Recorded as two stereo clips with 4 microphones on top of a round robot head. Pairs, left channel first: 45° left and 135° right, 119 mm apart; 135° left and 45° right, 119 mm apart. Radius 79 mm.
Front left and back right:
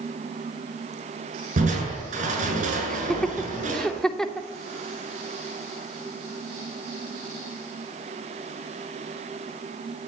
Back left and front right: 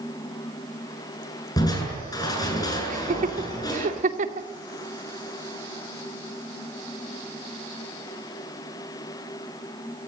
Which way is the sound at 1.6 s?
165° right.